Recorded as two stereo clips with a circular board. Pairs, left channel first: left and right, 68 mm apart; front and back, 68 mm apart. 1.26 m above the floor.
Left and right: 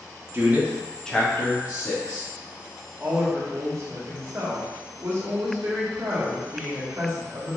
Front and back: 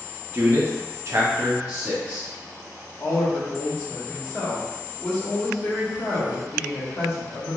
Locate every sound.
0.3 s a man speaking: 130° right, 0.6 m; by 2.3 s 110° left, 1.0 m
3.0 s a woman speaking: 45° right, 1.0 m